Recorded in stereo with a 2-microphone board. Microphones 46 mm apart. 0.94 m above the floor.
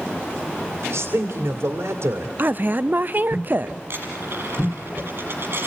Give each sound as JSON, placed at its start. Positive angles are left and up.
{"t": 0.8, "sound": "a man speaking", "side_deg": -70, "distance_m": 2.0}
{"t": 2.4, "sound": "a woman speaking", "side_deg": -45, "distance_m": 0.6}
{"t": 3.9, "sound": "a dropped coin", "side_deg": -50, "distance_m": 7.0}